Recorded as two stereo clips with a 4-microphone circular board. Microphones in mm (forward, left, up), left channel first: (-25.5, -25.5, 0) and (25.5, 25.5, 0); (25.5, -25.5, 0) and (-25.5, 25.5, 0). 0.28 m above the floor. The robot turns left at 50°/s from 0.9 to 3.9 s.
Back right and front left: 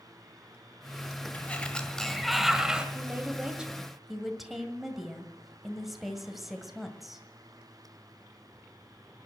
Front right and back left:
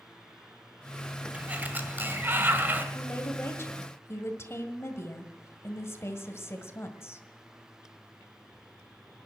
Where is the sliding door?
175° right, 1.5 m; by 2.9 s 105° left, 1.5 m.